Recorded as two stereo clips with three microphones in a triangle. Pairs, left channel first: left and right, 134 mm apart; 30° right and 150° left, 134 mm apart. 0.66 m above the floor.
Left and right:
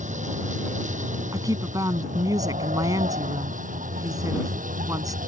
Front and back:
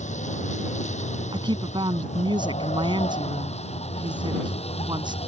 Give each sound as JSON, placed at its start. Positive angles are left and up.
{"t": 0.0, "sound": "a vehicle", "azimuth_deg": -60}
{"t": 1.3, "sound": "a woman speaking", "azimuth_deg": -155}